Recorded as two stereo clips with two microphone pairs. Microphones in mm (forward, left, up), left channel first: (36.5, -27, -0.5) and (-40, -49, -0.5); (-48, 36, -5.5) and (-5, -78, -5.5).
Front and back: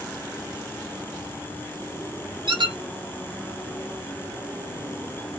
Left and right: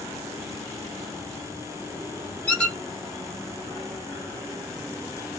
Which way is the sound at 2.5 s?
165° right.